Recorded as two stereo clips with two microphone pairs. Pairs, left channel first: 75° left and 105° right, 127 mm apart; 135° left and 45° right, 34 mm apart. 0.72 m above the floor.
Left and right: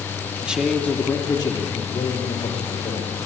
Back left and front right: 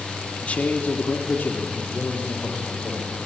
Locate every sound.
0.4 s a man speaking: 175° left, 1.5 m; by 3.3 s 95° left, 4 m